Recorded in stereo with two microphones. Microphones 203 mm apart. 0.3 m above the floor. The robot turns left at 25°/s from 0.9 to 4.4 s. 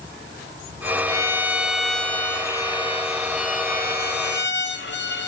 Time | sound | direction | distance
1.1 | a violin | 160° right | 0.5 m